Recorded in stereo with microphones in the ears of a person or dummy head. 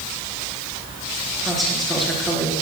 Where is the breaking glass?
I don't hear breaking glass.